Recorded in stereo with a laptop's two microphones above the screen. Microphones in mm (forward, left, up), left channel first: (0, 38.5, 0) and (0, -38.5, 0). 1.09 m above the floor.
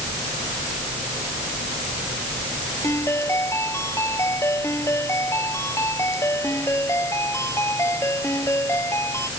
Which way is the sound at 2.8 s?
40° left (ahead or behind).